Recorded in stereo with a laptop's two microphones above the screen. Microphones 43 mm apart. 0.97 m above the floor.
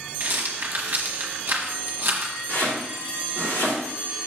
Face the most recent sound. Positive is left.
turn(degrees=75)  # may be behind; listen again after turning